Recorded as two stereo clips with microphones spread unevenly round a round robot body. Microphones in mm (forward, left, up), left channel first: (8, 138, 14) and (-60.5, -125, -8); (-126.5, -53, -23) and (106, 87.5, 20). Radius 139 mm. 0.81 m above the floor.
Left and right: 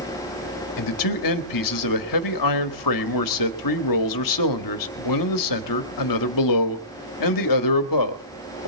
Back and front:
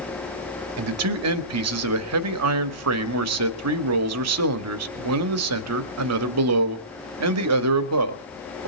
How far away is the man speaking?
About 1.6 m.